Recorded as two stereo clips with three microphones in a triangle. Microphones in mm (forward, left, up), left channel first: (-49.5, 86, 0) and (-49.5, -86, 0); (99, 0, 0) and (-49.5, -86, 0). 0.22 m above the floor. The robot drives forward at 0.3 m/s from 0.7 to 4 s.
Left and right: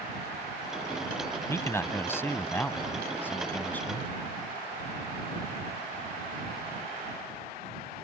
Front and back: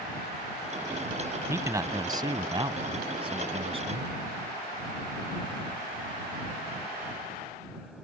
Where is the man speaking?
150° left; by 4.1 s 170° left.